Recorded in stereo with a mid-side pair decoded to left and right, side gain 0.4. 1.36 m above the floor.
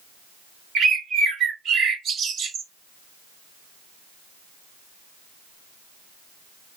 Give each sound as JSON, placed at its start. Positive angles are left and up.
{"t": 0.8, "sound": "a bird", "azimuth_deg": -65, "distance_m": 1.2}